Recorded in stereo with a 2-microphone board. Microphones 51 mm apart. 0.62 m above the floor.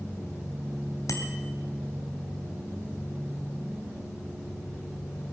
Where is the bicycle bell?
80° left, 2.5 m.